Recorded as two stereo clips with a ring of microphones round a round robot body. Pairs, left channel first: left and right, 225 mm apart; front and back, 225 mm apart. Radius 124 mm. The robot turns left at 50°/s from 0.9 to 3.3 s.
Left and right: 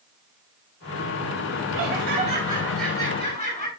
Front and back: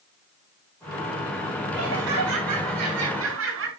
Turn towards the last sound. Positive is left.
turn(degrees=155)